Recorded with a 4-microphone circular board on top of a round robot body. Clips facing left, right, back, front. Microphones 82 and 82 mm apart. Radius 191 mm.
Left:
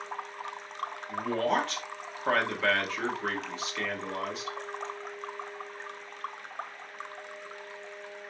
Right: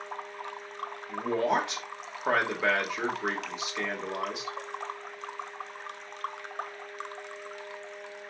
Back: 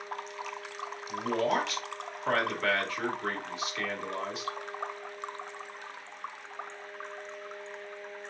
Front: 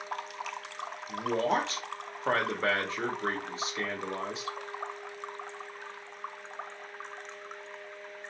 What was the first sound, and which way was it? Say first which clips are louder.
A man speaking: right 1 dB, even; 30° right.